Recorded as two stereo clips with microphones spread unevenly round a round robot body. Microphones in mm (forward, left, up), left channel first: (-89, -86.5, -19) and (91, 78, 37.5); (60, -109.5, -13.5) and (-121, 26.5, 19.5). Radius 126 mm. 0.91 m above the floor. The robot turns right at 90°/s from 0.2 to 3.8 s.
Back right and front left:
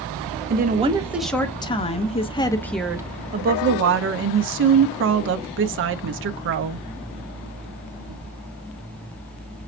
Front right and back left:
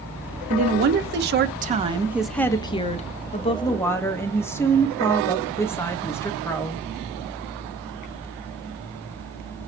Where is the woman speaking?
85° left, 0.6 m; by 6.8 s 25° left, 0.6 m.